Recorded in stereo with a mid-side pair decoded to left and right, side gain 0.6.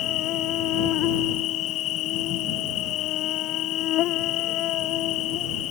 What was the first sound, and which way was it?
An insect, 60° left.